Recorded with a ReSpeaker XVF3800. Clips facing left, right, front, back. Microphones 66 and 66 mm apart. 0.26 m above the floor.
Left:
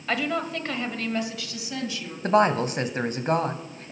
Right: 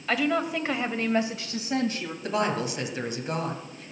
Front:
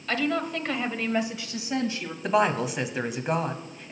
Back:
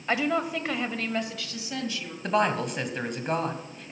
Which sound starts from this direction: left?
A woman speaking, at 2.2 s.